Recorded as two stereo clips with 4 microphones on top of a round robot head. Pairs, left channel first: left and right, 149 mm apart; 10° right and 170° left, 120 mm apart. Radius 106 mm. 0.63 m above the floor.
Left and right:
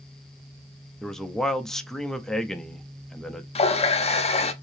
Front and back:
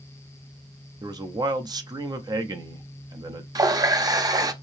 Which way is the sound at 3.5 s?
120° left.